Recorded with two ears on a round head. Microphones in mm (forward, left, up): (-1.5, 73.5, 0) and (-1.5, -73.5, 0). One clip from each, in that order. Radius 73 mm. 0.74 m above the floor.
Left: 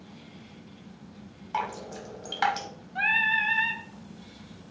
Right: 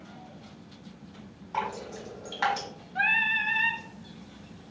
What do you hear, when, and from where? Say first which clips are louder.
1.5 s dripping: left 1 dB; 35° left (ahead or behind), 1.2 m
3.0 s singing: left 1 dB; 5° left (ahead or behind), 0.5 m